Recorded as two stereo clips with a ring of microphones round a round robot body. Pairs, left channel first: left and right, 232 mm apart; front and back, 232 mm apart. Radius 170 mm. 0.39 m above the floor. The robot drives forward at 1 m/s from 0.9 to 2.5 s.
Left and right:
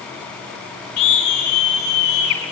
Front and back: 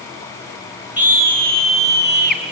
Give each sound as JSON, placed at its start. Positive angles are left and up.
{"t": 1.0, "sound": "a scream", "azimuth_deg": 125, "distance_m": 3.5}